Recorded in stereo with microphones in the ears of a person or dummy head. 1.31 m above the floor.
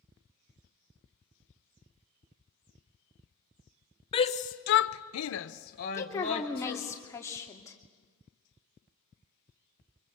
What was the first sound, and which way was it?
A shout, 30° left (ahead or behind).